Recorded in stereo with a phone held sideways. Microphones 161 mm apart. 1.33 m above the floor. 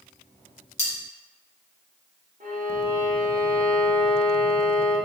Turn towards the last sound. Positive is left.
turn(degrees=-55)  # may be behind; listen again after turning